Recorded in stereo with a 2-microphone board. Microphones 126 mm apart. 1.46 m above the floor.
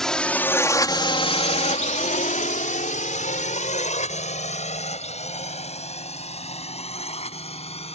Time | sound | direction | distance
0.0 | a drone | 5° left (ahead or behind) | ?